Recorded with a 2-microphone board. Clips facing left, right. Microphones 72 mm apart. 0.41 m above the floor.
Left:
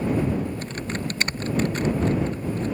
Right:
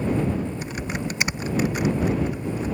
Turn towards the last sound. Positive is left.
turn(degrees=-10)  # may be behind; listen again after turning